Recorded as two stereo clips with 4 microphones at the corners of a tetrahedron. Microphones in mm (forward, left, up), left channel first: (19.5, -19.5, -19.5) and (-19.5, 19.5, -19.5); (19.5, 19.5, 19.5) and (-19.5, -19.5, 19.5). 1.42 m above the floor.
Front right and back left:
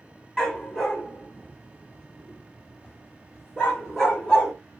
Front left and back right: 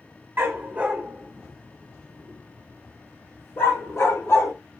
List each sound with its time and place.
0.4 s a dog barking: 120° right, 1.3 m; by 4.5 s 35° left, 2.5 m